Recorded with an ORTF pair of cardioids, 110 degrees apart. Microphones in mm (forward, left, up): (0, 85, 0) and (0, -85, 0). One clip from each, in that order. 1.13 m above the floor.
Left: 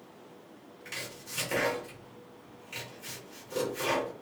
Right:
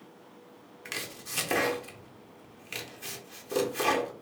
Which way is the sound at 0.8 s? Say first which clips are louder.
Right 3 dB; 70° right.